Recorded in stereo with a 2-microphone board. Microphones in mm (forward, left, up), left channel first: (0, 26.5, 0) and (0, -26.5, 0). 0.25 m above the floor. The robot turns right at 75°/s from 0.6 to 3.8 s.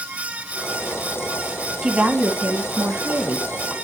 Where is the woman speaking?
165° right, 2.0 m; by 3.7 s 20° right, 2.0 m.